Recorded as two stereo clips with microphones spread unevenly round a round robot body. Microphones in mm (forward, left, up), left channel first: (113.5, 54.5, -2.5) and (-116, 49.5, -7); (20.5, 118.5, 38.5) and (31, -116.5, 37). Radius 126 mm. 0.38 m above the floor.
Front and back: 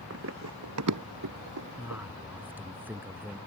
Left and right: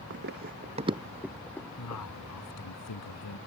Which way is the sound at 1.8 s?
100° left.